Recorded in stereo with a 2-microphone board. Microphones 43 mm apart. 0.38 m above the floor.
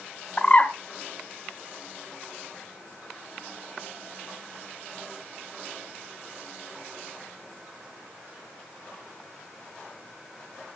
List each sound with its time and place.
0.4 s a bird: 30° left (ahead or behind), 1.5 m